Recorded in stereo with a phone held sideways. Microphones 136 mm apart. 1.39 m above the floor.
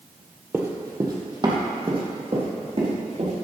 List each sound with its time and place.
0.5 s running footsteps: 15° right (ahead or behind), 1.8 m; by 3.3 s 45° right (ahead or behind), 5.5 m